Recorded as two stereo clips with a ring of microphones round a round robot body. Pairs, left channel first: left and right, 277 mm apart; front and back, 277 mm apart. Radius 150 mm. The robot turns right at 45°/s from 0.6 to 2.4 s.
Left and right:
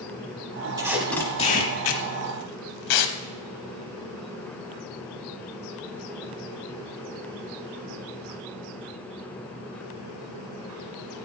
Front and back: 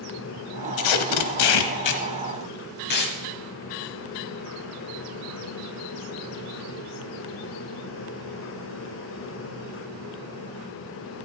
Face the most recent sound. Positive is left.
turn(degrees=60)